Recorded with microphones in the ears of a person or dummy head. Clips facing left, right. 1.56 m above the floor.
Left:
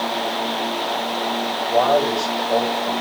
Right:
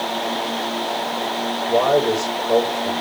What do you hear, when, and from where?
1.7 s a man speaking: 40° right (ahead or behind), 7.5 m